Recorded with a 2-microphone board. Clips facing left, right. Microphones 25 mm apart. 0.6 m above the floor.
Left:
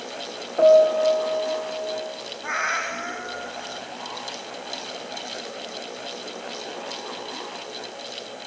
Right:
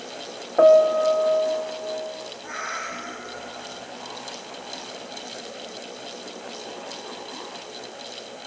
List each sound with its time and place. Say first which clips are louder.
0.6 s a piano: even; 35° right (ahead or behind), 0.8 m
2.4 s a cat meowing: left 7 dB; 45° left (ahead or behind), 0.7 m